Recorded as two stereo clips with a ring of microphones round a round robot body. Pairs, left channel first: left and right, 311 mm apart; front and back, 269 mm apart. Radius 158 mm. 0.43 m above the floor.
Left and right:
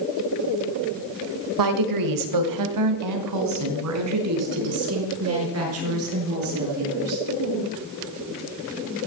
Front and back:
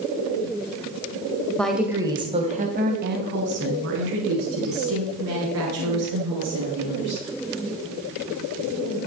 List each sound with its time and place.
1.6 s a woman speaking: 85° right, 1.6 m; by 7.2 s 140° right, 7 m